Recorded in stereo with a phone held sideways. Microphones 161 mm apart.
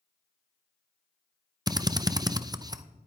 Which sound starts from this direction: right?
A drill, at 1.7 s.